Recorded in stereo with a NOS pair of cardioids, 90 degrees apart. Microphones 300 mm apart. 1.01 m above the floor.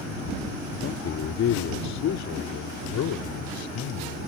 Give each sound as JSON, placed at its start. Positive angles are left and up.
{"t": 0.8, "sound": "a man speaking", "azimuth_deg": 50}